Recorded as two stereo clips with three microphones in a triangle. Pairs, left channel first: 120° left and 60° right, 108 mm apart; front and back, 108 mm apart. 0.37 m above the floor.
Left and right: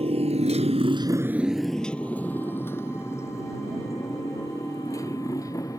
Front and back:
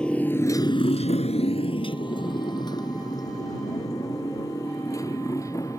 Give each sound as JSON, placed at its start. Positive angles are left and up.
{"t": 0.0, "sound": "a motorcycle", "azimuth_deg": -80}